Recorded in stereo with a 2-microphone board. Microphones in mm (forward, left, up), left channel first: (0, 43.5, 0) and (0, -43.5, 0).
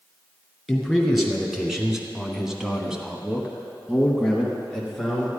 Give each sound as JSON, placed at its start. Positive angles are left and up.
{"t": 0.7, "sound": "a man speaking", "side_deg": 0, "distance_m": 2.5}